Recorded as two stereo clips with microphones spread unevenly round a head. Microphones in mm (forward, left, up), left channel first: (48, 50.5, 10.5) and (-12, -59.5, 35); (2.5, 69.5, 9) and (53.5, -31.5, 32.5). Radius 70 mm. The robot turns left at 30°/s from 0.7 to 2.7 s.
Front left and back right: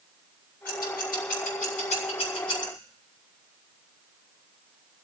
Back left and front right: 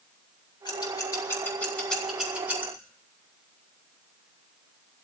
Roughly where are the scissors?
Left.